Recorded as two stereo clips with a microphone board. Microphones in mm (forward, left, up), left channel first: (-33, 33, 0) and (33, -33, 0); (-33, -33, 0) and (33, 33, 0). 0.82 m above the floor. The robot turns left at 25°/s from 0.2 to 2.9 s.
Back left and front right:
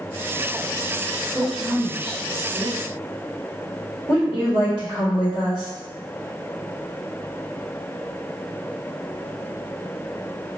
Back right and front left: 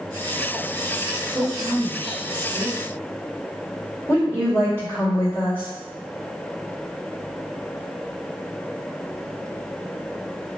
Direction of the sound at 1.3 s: 40° left.